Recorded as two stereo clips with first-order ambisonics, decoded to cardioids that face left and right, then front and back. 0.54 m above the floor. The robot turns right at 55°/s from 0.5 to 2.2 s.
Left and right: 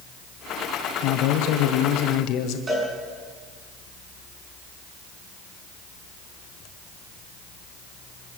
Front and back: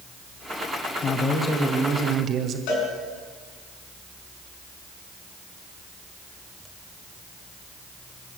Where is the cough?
No cough in this recording.